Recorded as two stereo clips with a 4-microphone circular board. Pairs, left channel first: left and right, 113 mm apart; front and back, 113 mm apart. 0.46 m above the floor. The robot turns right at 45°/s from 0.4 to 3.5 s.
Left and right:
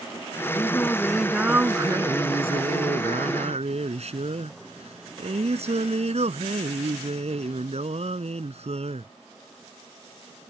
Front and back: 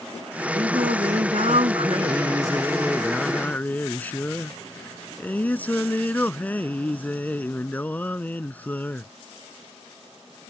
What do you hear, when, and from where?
0.5 s singing: 150° left; by 9.1 s 75° right